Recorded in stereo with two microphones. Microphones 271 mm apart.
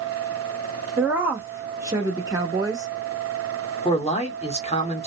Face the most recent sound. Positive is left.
turn(degrees=20)  # may be behind; listen again after turning